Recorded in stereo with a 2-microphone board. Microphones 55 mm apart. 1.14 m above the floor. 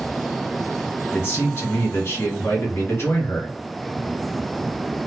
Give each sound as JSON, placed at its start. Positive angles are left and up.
{"t": 1.1, "sound": "a man speaking", "side_deg": 50, "distance_m": 1.1}